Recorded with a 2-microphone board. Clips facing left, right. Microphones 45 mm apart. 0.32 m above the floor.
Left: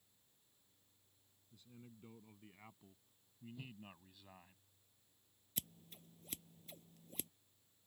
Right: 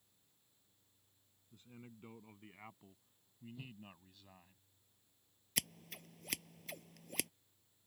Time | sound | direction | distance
1.5 | a man speaking | 45° right (ahead or behind) | ?
3.5 | a whoosh | centre (ahead or behind) | ?
5.6 | scissors | 75° right (ahead or behind) | ?